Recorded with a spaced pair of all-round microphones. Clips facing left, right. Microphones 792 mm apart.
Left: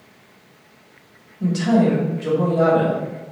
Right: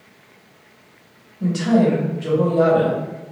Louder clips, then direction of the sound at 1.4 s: Right 1 dB; 5° right (ahead or behind).